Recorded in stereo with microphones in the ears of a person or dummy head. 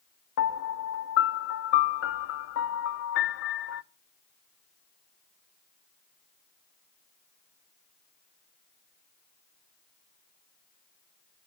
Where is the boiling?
I don't hear boiling.